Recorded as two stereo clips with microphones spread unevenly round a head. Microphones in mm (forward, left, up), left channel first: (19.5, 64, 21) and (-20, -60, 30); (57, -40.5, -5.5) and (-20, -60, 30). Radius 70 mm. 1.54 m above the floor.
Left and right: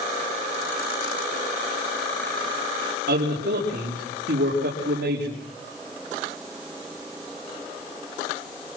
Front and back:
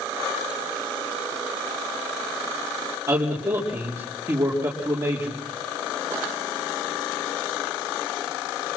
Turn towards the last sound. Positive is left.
turn(degrees=-110)